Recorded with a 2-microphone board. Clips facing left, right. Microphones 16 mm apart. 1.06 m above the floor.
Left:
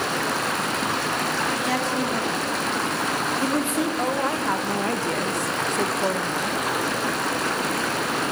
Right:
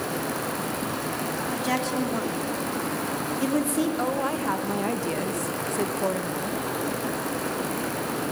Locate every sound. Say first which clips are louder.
0.0 s running water: left 5 dB; 50° left (ahead or behind), 1.8 m
1.5 s a woman speaking: left 3 dB; 5° right (ahead or behind), 3 m
4.0 s a woman speaking: left 3 dB; 10° left (ahead or behind), 1.3 m